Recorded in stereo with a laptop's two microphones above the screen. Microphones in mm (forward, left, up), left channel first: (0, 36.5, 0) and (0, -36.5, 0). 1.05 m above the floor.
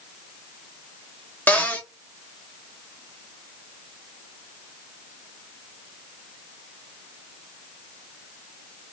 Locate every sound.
1.5 s a cupboard door: 25° left (ahead or behind), 0.8 m